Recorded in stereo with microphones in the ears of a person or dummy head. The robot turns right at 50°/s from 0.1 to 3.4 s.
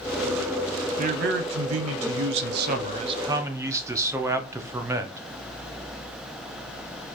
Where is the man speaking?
140° right, 0.8 m; by 5.2 s 20° right, 0.8 m.